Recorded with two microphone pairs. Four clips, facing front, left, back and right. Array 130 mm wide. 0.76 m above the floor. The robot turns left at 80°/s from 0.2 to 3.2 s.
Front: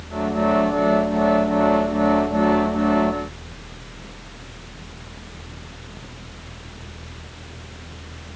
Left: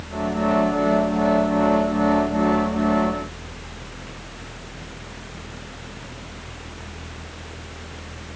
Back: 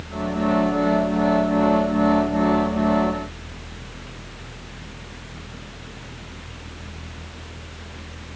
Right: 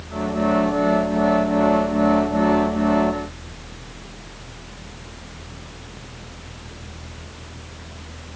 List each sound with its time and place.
Only background noise.